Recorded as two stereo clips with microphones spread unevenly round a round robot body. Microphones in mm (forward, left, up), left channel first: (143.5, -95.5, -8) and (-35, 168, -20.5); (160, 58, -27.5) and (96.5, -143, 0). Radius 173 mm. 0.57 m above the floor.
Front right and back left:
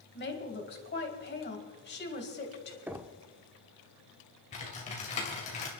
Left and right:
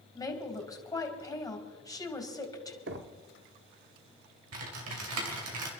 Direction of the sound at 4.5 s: 125° right.